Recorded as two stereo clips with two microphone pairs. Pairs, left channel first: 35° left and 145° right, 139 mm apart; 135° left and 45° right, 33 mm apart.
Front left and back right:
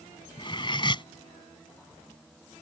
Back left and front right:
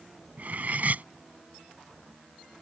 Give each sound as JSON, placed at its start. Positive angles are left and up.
{"t": 0.4, "sound": "cutlery clinking", "azimuth_deg": -15}